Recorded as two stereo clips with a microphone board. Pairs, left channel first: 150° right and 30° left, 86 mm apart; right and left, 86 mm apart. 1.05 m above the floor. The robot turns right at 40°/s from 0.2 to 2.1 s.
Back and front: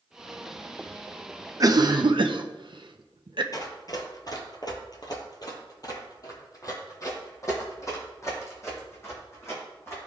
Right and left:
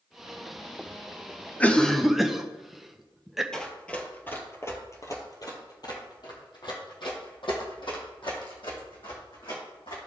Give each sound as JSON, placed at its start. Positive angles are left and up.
{"t": 1.6, "sound": "a cough", "azimuth_deg": -15, "distance_m": 0.7}
{"t": 3.5, "sound": "running footsteps", "azimuth_deg": -170, "distance_m": 1.4}